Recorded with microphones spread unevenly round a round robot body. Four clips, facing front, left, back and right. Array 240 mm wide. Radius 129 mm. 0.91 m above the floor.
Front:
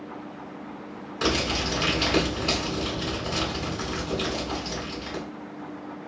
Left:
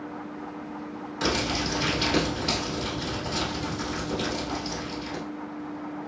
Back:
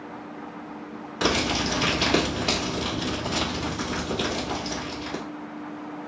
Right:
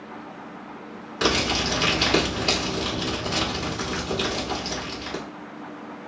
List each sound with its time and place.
1.2 s crumpling: 150° right, 1.9 m